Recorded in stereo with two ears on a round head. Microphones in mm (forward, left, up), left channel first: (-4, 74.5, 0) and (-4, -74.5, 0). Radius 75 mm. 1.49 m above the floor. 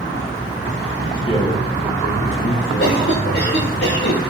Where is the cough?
70° left (ahead or behind), 5 m.